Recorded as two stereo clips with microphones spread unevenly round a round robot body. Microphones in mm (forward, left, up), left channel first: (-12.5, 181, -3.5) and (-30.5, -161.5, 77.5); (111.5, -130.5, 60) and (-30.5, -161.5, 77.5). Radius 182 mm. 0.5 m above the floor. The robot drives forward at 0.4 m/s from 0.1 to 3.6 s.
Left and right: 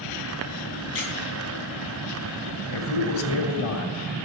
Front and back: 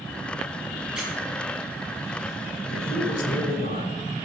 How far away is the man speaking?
About 2.5 m.